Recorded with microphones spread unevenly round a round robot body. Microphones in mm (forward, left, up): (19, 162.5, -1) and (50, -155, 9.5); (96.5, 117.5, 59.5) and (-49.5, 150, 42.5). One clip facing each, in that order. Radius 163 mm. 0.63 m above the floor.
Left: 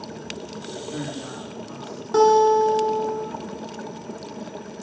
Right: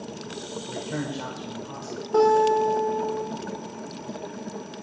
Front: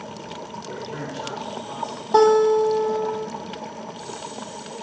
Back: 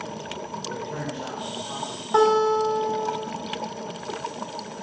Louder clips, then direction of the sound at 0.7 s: Right 1 dB, even; 115° right.